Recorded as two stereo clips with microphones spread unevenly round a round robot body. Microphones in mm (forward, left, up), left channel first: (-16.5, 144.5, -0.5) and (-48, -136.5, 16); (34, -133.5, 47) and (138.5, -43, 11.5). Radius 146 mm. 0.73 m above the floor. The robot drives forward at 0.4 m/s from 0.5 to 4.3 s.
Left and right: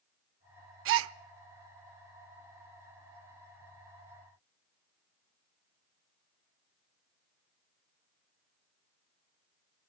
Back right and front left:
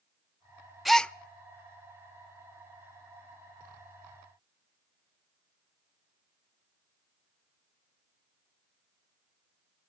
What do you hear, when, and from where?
0.8 s a gasp: 60° right, 0.6 m; by 1.1 s 70° right, 0.5 m